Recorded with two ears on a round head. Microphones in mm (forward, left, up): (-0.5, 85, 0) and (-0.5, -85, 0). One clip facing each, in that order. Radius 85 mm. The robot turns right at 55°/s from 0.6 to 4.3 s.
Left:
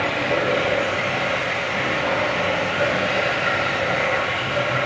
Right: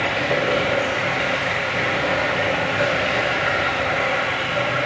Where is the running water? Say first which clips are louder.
Even; 170° right, 1.0 m; by 4.9 s 35° left, 1.0 m.